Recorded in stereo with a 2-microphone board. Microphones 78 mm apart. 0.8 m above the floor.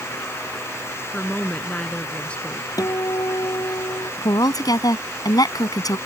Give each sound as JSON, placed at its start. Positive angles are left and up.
{"t": 1.1, "sound": "a woman speaking", "side_deg": 15}
{"t": 2.8, "sound": "a guitar", "side_deg": 50}
{"t": 4.2, "sound": "a woman speaking", "side_deg": 55}